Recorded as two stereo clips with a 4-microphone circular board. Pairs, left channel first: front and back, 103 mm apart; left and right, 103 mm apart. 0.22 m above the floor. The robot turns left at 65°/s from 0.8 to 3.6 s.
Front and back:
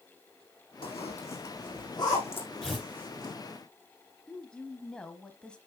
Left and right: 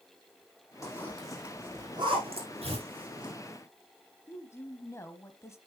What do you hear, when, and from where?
0.8 s a zipper: 30° left, 4.5 m; by 3.3 s 135° right, 4.5 m
2.6 s tearing paper: 85° right, 6.5 m; by 2.9 s 100° right, 6.5 m
4.3 s a woman speaking: 70° left, 1.1 m